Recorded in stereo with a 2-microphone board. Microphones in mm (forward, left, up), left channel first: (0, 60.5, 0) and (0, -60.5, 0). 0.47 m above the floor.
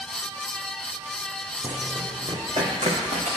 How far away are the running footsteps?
About 1.6 m.